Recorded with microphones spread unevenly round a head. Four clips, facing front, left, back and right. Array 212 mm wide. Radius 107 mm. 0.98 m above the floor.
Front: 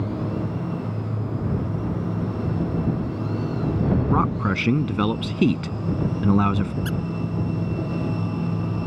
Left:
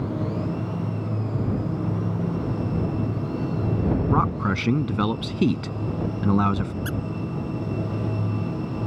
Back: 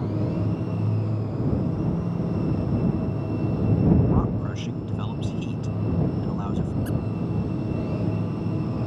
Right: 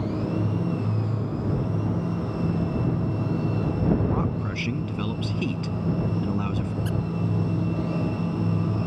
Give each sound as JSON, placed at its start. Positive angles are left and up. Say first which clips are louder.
{"t": 4.1, "sound": "a man speaking", "louder": "left 5 dB, front 4 dB", "azimuth_deg": 25}
{"t": 6.8, "sound": "a squeak", "louder": "even, even", "azimuth_deg": 35}